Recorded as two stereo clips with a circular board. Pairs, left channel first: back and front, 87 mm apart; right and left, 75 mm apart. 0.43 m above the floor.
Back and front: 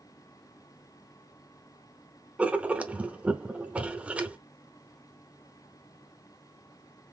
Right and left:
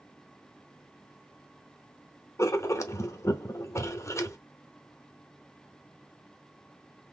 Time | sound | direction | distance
2.4 | writing | 70° right | 0.8 m